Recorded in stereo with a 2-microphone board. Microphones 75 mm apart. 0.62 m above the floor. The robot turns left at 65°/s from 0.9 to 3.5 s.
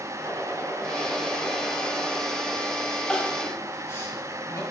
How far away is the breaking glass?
No breaking glass in this recording.